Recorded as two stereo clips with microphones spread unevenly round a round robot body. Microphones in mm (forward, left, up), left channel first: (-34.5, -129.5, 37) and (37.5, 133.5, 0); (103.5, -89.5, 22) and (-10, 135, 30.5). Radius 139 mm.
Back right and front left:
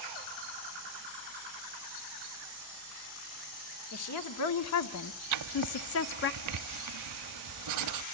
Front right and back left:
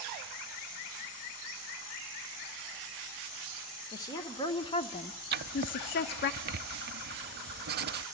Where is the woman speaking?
140° right, 2.0 m; by 6.3 s 65° right, 0.9 m.